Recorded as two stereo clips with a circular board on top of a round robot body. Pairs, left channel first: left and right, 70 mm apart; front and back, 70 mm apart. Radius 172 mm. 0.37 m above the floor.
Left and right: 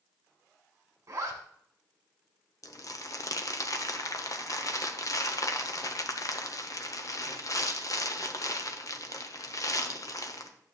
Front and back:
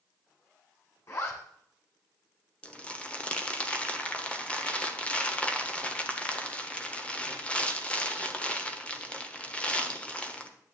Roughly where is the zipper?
Ahead right.